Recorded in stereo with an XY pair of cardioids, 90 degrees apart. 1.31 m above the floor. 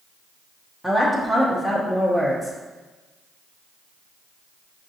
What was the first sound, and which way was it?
A woman speaking, 10° left.